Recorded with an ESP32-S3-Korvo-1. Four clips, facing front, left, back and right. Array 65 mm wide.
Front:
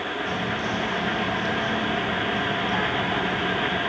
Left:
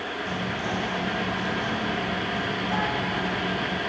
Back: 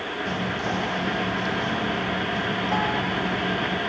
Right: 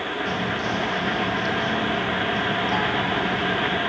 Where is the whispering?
165° right, 6.5 m.